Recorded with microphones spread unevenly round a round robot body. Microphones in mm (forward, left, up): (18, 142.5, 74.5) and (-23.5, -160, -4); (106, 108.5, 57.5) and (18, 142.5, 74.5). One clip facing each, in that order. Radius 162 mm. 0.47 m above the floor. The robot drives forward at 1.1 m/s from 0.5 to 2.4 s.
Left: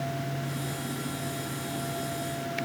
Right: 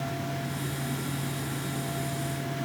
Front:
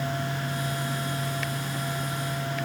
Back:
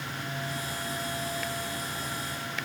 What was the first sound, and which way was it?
Only background noise.